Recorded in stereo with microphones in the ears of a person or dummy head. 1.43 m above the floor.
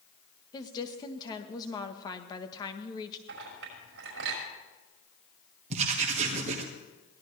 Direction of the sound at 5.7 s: 40° right (ahead or behind).